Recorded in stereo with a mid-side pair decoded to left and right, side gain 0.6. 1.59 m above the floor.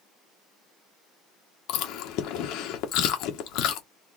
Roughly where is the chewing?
Left.